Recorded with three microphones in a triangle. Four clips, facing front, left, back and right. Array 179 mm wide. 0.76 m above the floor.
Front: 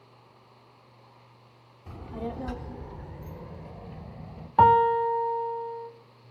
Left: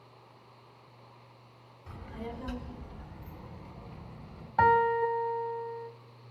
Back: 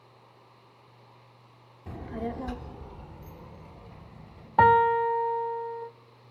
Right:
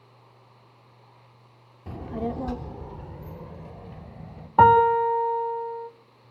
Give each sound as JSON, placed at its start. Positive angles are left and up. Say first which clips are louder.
{"t": 1.9, "sound": "a child speaking", "louder": "right 11 dB, back 1 dB", "azimuth_deg": -115, "distance_m": 1.2}
{"t": 4.6, "sound": "a piano", "louder": "right 8 dB, front 1 dB", "azimuth_deg": -90, "distance_m": 0.7}